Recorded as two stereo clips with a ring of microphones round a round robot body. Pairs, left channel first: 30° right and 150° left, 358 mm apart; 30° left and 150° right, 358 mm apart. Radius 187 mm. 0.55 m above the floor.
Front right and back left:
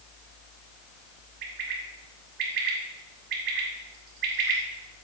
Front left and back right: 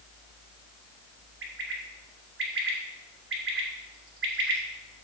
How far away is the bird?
About 2 m.